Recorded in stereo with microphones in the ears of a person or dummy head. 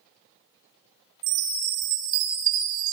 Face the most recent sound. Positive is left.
turn(degrees=-40)  # may be behind; listen again after turning